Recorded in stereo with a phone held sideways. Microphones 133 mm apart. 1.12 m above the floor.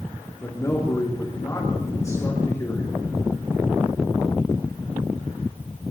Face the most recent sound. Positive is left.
turn(degrees=25)  # may be behind; listen again after turning